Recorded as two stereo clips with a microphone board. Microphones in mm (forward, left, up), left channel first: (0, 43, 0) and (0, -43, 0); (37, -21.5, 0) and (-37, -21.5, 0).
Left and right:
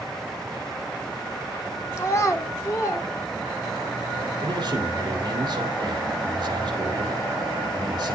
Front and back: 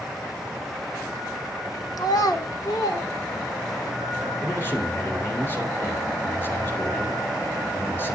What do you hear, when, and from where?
2.0 s a child speaking: 35° left, 0.7 m
4.4 s a man speaking: 60° right, 2.0 m